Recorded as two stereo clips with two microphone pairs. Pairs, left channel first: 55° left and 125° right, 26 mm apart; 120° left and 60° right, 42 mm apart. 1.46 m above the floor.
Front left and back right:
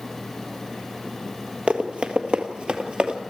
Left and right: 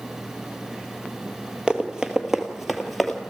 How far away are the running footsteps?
About 2 m.